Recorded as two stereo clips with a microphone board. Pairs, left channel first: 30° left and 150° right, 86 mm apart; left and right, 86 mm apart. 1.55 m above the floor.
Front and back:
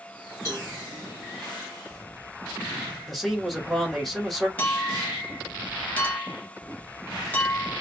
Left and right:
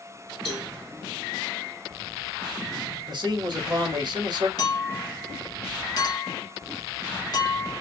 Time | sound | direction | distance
0.5 | a cowbell | straight ahead | 1.9 m
3.1 | a man speaking | 60° right | 1.1 m
4.6 | a clink | 90° left | 0.8 m